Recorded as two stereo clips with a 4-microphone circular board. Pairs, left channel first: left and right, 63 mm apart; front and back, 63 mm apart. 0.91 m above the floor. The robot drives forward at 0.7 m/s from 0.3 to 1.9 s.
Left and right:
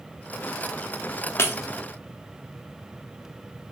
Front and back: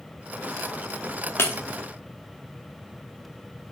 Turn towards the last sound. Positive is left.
turn(degrees=80)